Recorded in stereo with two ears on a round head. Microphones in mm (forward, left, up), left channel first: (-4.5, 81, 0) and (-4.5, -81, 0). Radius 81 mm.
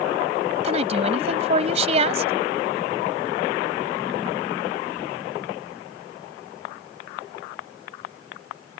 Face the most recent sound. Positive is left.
turn(degrees=-35)  # may be behind; listen again after turning